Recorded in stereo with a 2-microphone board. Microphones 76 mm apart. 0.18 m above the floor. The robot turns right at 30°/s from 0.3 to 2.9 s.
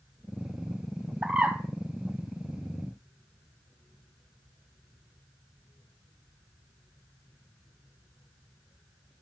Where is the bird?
5° right (ahead or behind), 2.5 m; by 1.6 s 15° right (ahead or behind), 2.5 m.